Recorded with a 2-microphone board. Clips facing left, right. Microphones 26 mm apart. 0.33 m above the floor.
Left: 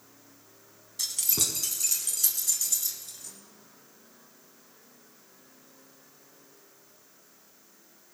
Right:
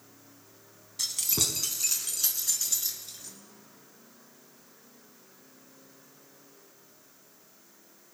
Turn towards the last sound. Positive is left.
turn(degrees=-20)  # may be behind; listen again after turning